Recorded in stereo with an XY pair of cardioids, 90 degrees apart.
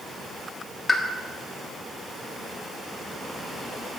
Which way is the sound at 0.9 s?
25° left.